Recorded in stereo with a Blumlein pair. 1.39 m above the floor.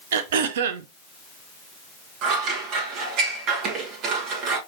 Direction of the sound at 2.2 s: 35° right.